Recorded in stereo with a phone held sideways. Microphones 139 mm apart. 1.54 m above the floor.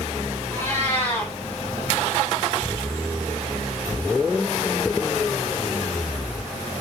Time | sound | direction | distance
0.5 | a cat meowing | 20° left (ahead or behind) | 1.4 m